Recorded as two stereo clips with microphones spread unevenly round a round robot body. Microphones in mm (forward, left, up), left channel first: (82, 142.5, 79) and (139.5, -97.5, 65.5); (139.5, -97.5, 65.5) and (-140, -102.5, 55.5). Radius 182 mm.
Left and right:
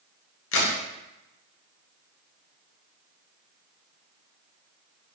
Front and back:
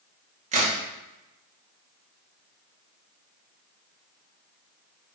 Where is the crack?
120° left, 1.7 m.